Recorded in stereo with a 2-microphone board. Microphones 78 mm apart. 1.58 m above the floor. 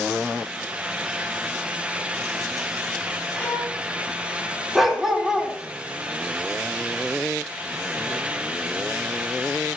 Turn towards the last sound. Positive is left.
turn(degrees=0)  # may be behind; listen again after turning